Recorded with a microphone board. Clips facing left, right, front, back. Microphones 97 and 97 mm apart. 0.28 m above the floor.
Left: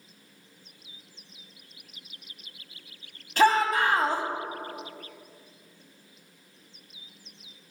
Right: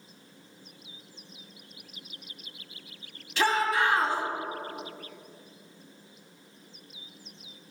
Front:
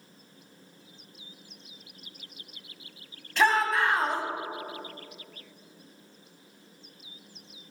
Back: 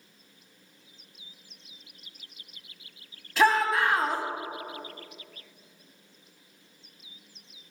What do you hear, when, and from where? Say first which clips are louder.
3.4 s a shout: left 4 dB, back 1 dB; 95° left, 1.8 m